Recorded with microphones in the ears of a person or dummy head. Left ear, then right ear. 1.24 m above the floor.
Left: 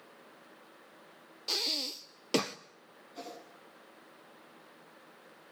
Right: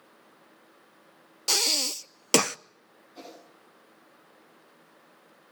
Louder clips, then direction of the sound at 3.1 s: Left 1 dB; centre (ahead or behind).